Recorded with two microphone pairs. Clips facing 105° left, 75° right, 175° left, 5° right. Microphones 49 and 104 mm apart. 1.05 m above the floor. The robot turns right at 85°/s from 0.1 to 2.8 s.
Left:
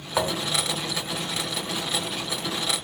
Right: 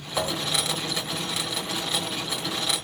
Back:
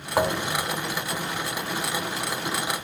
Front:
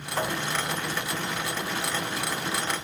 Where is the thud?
160° left, 1.7 m; by 0.7 s 155° right, 1.7 m.